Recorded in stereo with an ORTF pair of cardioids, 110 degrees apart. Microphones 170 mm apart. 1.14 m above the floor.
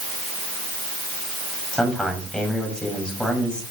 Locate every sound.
1.7 s a man speaking: 5° left, 5.5 m